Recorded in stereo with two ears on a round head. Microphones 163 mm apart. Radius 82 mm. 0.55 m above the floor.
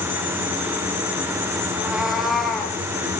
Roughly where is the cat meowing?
Centre.